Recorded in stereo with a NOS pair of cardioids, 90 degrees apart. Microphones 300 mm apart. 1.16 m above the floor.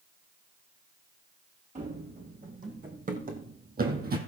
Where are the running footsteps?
25° right, 4 m; by 4.2 s 35° right, 3 m.